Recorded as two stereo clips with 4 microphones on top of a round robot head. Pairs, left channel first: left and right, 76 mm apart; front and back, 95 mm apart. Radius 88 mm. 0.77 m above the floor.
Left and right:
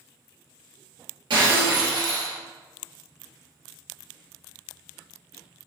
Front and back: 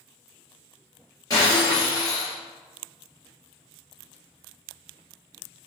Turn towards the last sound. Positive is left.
turn(degrees=-60)